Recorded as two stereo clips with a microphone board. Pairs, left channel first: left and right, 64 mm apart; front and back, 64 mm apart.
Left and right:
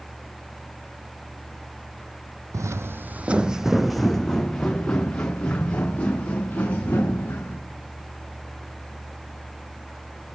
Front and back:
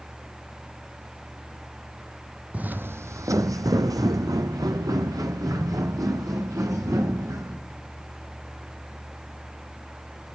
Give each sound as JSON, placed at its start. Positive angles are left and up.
{"t": 2.5, "sound": "footsteps", "azimuth_deg": -115, "distance_m": 0.5}